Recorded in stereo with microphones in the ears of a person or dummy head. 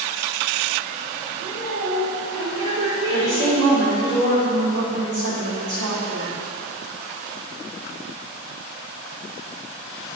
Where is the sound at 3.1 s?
60° right (ahead or behind), 2.5 m.